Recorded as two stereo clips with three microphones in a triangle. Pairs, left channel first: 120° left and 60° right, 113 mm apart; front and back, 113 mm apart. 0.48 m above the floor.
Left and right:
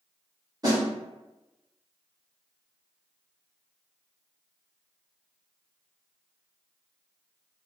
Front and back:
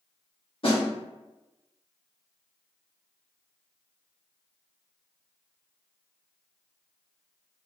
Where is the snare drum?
15° right, 1.4 m.